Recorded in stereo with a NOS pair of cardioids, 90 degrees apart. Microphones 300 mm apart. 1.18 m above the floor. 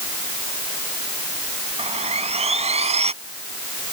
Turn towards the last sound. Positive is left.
turn(degrees=-20)